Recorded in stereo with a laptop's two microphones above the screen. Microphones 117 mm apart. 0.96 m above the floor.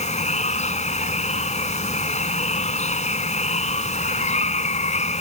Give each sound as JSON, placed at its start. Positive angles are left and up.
{"t": 0.0, "sound": "running water", "side_deg": 75}